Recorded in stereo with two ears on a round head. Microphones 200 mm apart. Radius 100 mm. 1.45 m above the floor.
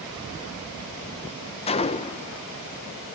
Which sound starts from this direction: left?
A gunshot, at 1.7 s.